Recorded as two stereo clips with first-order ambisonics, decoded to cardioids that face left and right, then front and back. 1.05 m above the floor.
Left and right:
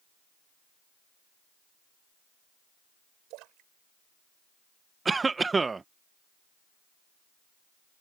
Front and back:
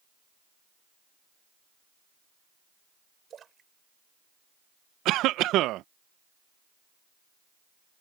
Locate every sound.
3.3 s a splash: 115° right
5.0 s a cough: 165° right